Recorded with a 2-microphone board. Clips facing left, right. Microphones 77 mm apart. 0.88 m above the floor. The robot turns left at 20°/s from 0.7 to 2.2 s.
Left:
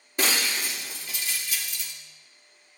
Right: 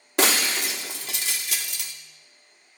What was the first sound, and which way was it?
Breaking glass, 90° right.